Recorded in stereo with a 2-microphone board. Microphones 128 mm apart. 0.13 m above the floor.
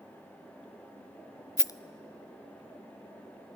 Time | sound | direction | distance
1.6 | a rattle | 30° left (ahead or behind) | 0.6 m